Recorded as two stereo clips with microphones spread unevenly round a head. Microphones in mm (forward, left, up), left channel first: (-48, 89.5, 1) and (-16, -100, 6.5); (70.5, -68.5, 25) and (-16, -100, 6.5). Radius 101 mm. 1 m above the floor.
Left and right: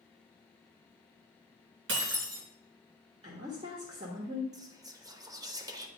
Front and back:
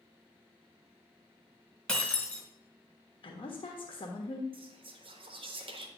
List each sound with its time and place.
1.9 s breaking glass: 60° right, 2.5 m
3.2 s a woman speaking: 20° right, 1.3 m
4.5 s whispering: 150° right, 1.1 m